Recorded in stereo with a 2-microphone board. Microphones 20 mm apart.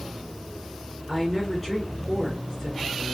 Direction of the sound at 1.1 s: 10° left (ahead or behind).